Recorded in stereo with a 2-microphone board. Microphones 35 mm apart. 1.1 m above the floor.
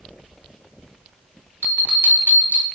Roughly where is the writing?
No writing in this recording.